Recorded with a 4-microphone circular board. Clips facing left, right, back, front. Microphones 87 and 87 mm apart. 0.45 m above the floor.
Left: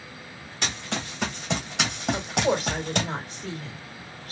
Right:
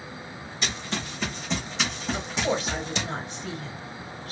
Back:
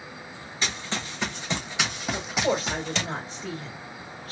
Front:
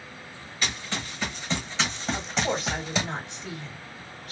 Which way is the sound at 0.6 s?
115° left.